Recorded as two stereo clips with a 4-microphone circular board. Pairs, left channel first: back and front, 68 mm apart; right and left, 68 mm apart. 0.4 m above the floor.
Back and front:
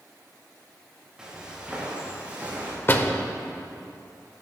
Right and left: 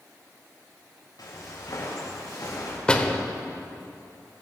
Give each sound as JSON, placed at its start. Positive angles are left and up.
{"t": 1.2, "sound": "footsteps", "azimuth_deg": -80, "distance_m": 5.0}
{"t": 2.9, "sound": "a door slam", "azimuth_deg": -150, "distance_m": 1.0}